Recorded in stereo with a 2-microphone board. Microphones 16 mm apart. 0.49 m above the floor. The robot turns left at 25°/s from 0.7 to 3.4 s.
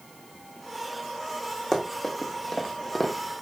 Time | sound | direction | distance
1.7 | running footsteps | 15° left (ahead or behind) | 1.3 m